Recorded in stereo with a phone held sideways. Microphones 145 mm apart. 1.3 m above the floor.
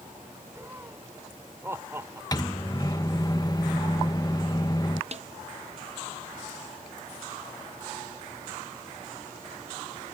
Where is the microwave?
25° left (ahead or behind).